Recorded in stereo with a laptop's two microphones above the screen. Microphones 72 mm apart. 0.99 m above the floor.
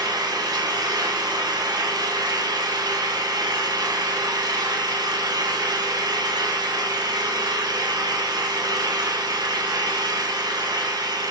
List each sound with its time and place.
0.0 s an engine running: 65° right (ahead or behind), 1.6 m